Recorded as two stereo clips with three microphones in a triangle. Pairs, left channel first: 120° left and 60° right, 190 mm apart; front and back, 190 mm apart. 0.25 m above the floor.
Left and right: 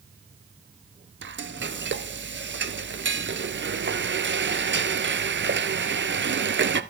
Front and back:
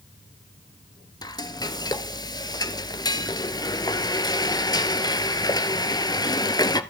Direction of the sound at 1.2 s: 70° right.